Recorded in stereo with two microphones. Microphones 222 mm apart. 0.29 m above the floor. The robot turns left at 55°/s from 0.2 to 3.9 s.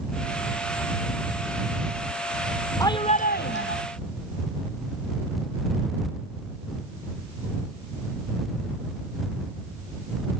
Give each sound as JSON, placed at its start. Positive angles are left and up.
{"t": 2.8, "sound": "a shout", "azimuth_deg": 165}